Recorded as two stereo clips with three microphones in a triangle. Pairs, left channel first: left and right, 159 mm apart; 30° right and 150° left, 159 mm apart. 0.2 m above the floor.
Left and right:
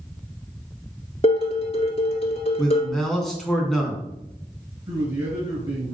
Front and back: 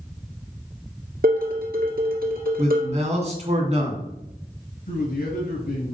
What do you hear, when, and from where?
1.2 s dishes clattering: 140° left, 2 m
2.6 s a man speaking: 175° left, 2 m
4.9 s a man speaking: 35° right, 3.5 m